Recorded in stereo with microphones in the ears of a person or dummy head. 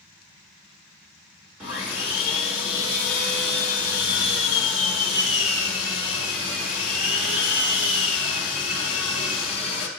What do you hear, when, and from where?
1.6 s sawing: 10° right (ahead or behind), 0.9 m